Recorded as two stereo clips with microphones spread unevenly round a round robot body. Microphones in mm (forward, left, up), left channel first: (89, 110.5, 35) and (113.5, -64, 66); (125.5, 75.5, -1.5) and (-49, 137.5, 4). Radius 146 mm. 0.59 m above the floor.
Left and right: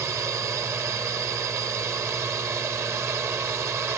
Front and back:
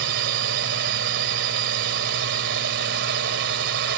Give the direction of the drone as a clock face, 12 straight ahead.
5 o'clock.